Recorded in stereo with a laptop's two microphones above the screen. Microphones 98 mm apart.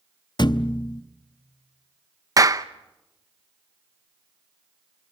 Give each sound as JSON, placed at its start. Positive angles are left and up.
{"t": 0.4, "sound": "a thud", "side_deg": 50, "distance_m": 0.5}
{"t": 2.4, "sound": "a clap", "side_deg": -35, "distance_m": 0.7}